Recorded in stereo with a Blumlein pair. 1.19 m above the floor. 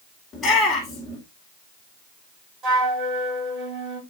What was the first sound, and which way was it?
A shout, 20° left.